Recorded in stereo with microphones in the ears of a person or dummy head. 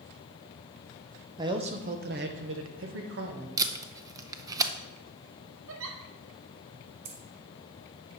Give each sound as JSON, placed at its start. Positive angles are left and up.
{"t": 1.4, "sound": "a man speaking", "side_deg": -20, "distance_m": 0.6}
{"t": 3.6, "sound": "tape being pulled", "side_deg": -20, "distance_m": 0.6}
{"t": 5.7, "sound": "a giggle", "side_deg": -70, "distance_m": 1.2}
{"t": 7.0, "sound": "keys jangling", "side_deg": -50, "distance_m": 1.9}